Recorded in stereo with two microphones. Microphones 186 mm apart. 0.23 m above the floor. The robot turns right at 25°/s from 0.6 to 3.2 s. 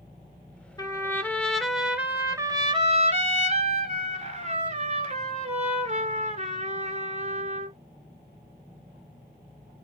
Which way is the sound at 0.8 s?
155° left.